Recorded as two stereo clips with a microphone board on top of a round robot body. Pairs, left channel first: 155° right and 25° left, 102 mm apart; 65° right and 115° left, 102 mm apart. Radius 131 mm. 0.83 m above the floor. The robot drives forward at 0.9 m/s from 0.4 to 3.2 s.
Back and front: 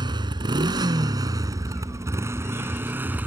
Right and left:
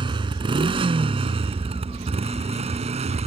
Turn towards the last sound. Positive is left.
turn(degrees=95)